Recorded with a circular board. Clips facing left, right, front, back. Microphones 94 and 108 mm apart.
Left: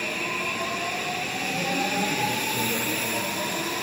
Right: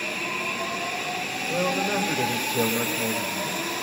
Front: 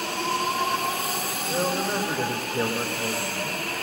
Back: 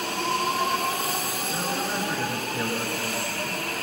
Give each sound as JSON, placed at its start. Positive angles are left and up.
{"t": 1.5, "sound": "a man speaking", "azimuth_deg": -55, "distance_m": 6.0}